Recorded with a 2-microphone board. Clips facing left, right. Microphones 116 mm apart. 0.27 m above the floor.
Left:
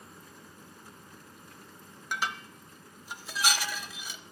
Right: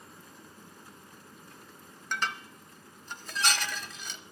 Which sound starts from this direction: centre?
Dishes clattering, at 2.1 s.